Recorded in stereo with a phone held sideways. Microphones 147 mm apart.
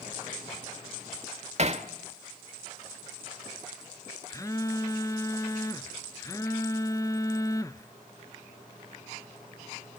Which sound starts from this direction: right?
Hammering, at 1.6 s.